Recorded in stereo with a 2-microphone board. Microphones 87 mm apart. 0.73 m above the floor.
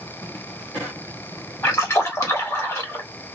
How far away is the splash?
About 1.4 m.